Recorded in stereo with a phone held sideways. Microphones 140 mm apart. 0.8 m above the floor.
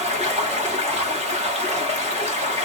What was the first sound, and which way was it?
Running water, 50° right (ahead or behind).